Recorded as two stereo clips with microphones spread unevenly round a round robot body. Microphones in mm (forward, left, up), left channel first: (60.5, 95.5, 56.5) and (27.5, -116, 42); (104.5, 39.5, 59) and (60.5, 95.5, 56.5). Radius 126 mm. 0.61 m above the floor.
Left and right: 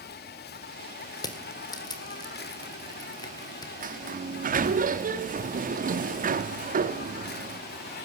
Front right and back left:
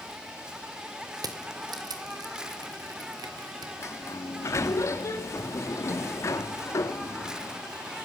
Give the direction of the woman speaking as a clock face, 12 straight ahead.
No woman speaking in this recording.